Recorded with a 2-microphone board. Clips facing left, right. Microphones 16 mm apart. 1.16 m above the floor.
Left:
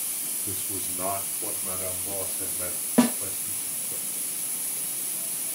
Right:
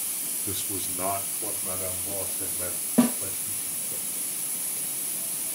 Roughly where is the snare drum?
Left.